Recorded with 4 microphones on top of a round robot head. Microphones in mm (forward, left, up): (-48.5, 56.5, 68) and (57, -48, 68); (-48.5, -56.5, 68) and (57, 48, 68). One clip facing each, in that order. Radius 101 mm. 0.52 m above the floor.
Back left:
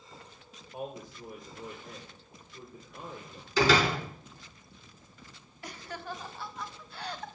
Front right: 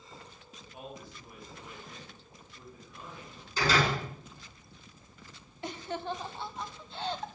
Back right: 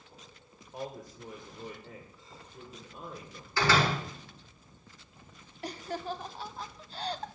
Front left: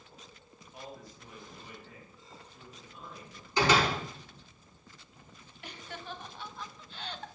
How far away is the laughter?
About 1.1 m.